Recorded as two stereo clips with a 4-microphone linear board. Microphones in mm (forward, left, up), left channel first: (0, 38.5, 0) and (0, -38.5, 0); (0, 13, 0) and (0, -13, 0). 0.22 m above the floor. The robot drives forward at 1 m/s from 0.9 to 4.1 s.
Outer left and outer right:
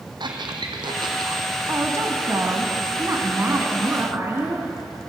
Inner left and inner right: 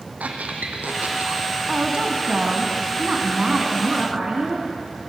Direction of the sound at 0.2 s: 80° right.